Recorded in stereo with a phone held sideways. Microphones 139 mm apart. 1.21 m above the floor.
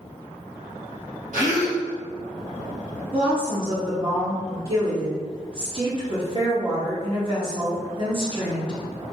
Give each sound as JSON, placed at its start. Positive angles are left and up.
{"t": 1.3, "sound": "a gasp", "side_deg": -70, "distance_m": 1.5}
{"t": 3.1, "sound": "a woman speaking", "side_deg": -35, "distance_m": 1.5}